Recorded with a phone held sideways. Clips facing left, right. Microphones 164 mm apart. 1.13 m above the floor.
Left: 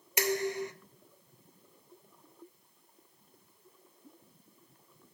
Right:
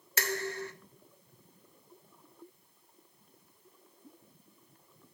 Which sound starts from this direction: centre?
Dishes clattering, at 0.2 s.